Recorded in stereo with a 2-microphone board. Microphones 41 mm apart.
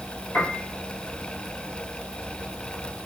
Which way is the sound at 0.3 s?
55° left (ahead or behind).